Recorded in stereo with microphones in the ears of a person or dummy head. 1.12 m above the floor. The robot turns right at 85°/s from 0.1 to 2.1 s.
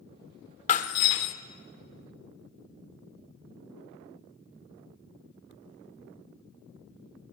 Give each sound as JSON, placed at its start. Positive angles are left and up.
{"t": 0.7, "sound": "breaking glass", "azimuth_deg": 50, "distance_m": 1.2}